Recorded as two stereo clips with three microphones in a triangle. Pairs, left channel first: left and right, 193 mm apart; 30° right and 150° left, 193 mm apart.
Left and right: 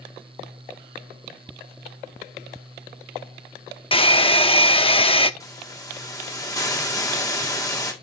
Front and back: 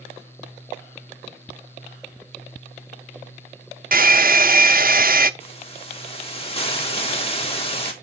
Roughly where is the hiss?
Ahead.